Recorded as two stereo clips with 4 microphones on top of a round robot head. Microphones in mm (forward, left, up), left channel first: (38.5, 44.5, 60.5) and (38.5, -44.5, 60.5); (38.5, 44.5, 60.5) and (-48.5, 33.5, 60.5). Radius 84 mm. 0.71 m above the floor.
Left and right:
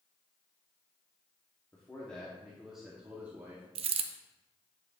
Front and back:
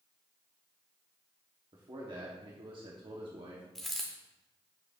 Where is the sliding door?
No sliding door in this recording.